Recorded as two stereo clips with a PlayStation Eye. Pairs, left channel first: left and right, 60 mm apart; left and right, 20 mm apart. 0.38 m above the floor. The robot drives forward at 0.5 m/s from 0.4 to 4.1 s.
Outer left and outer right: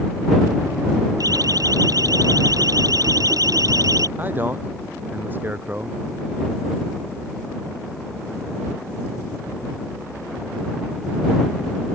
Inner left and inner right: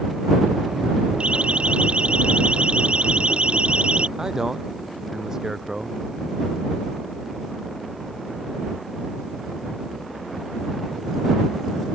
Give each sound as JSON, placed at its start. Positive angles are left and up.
{"t": 1.2, "sound": "a siren", "side_deg": -80}
{"t": 4.2, "sound": "a man speaking", "side_deg": -30}